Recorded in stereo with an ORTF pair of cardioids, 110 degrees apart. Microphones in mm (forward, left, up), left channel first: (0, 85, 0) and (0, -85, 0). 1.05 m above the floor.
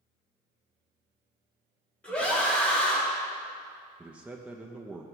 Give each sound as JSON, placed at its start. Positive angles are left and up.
{"t": 2.0, "sound": "a scream", "azimuth_deg": 5, "distance_m": 1.4}
{"t": 4.0, "sound": "a man speaking", "azimuth_deg": -5, "distance_m": 0.6}